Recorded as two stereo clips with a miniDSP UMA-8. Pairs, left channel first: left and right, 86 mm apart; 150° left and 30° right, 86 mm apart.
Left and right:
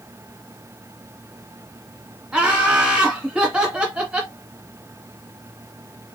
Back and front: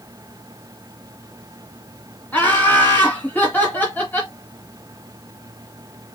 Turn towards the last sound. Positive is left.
turn(degrees=-160)